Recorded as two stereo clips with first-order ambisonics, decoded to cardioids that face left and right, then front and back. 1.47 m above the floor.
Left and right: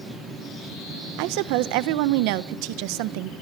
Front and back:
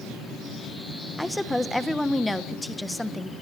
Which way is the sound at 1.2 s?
85° right.